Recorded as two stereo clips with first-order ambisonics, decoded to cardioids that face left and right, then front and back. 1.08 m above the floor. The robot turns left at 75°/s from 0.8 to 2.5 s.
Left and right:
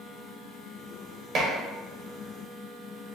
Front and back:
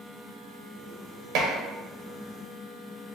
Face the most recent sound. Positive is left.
turn(degrees=130)